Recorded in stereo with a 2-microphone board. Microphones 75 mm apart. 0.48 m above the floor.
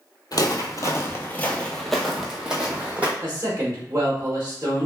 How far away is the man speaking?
About 0.9 m.